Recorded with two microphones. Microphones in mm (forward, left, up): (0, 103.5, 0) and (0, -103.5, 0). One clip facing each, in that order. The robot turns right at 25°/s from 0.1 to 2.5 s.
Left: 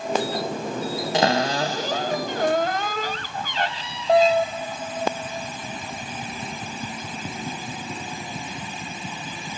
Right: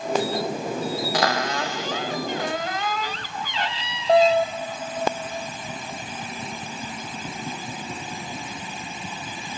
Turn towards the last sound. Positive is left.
turn(degrees=65)